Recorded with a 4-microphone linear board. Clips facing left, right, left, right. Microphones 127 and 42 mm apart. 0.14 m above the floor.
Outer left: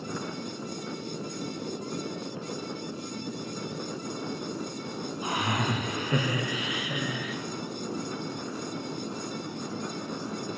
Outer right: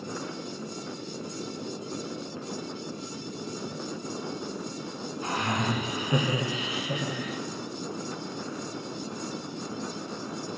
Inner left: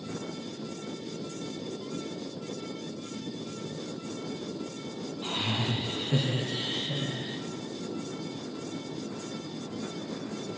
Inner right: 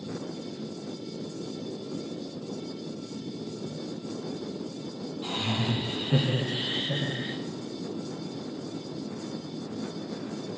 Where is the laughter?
15° left (ahead or behind), 1.2 m; by 7.4 s 45° right (ahead or behind), 1.8 m.